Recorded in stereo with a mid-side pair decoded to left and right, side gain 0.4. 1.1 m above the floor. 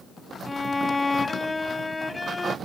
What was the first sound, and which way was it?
A violin, 20° left.